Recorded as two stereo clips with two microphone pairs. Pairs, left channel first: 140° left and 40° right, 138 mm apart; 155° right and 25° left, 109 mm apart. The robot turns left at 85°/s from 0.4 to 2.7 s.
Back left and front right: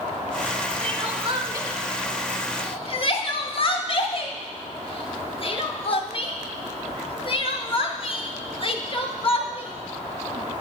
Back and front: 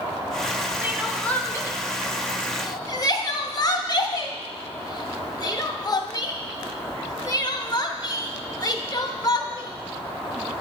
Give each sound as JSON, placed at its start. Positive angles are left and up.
{"t": 0.8, "sound": "crying", "azimuth_deg": -35, "distance_m": 0.5}